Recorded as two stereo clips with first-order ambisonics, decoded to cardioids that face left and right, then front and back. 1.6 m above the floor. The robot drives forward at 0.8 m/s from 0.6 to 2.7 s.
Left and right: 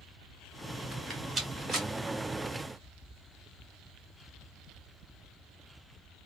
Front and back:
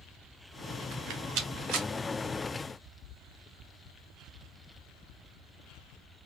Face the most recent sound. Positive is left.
turn(degrees=180)